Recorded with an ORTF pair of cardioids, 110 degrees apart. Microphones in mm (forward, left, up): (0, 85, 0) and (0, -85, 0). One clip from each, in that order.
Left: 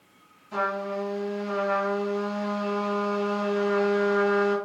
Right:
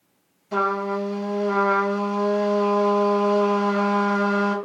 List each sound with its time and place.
0.5 s a trumpet: 60° right, 1.9 m